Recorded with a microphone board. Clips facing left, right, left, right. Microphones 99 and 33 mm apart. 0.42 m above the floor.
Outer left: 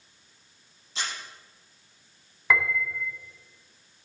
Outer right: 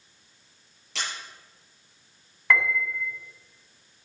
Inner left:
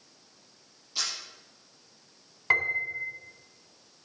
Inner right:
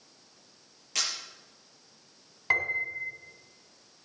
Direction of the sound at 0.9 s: 85° right.